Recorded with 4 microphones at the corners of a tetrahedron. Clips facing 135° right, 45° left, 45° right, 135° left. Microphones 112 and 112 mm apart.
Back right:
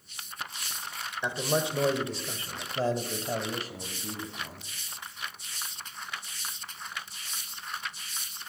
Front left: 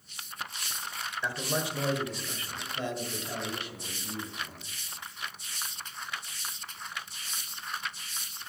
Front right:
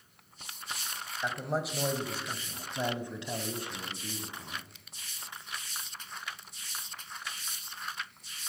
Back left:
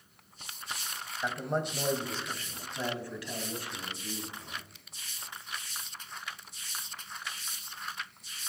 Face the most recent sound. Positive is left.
turn(degrees=-95)